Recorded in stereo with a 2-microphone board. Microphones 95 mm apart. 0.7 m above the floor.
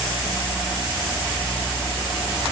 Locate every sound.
Only background noise.